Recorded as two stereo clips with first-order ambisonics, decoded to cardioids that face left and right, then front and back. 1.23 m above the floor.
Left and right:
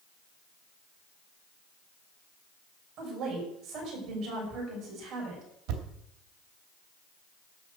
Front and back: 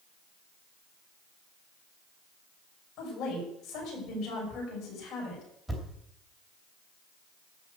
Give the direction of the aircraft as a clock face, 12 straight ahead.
No aircraft in this recording.